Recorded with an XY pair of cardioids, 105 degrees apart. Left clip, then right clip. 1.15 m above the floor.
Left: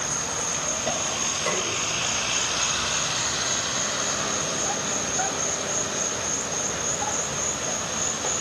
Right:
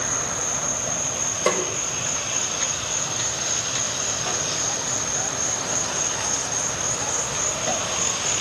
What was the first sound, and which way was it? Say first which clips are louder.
An insect: right 2 dB; 25° right.